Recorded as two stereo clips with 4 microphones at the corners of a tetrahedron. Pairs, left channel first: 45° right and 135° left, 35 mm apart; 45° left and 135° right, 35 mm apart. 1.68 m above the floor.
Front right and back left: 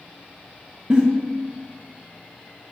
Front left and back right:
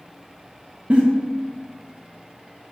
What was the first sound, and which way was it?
A giggle, 175° right.